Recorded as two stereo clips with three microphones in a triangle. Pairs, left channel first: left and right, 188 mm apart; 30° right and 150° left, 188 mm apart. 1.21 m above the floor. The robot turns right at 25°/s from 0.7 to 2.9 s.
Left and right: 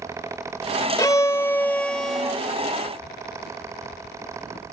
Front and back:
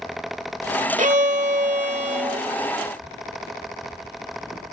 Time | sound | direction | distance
1.0 | a violin | 150° left | ?